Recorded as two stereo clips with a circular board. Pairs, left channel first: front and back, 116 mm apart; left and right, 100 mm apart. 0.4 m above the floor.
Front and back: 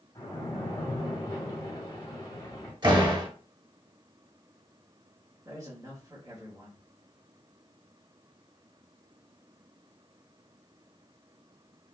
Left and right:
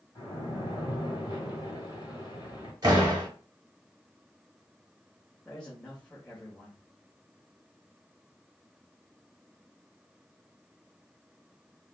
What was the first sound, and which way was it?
A splash, 50° left.